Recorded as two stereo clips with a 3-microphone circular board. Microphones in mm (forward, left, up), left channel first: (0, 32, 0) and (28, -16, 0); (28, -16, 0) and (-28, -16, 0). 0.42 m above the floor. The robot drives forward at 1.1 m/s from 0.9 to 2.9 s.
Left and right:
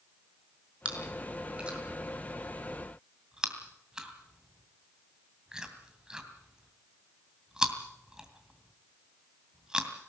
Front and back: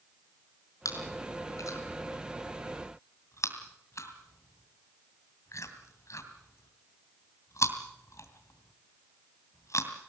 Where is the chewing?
10° left, 4.5 m; by 9.9 s 15° left, 2.5 m.